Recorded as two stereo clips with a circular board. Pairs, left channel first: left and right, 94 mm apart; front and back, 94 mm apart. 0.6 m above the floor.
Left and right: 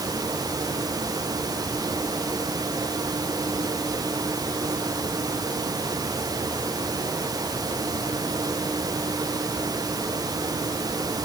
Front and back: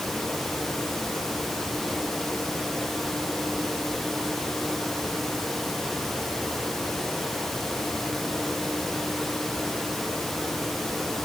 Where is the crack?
I don't hear a crack.